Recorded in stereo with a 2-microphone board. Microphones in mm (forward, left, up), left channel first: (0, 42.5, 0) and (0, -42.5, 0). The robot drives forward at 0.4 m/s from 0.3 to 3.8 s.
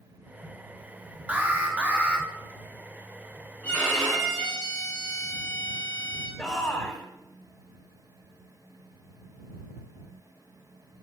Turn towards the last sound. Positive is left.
turn(degrees=10)  # may be behind; listen again after turning